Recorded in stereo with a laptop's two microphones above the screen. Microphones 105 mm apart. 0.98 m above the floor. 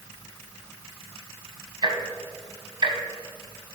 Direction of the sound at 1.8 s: 45° right (ahead or behind).